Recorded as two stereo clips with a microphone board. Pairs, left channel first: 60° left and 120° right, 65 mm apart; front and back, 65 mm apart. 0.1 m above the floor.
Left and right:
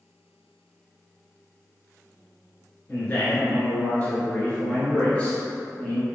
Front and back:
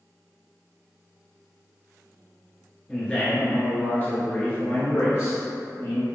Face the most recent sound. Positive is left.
turn(degrees=-10)